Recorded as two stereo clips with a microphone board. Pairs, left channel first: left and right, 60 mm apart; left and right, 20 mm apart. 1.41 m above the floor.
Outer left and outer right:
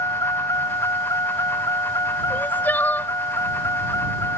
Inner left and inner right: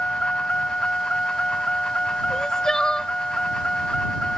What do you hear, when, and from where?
0.0 s a vehicle: 85° left; by 4.4 s 60° left (ahead or behind)
2.3 s crying: 30° left (ahead or behind)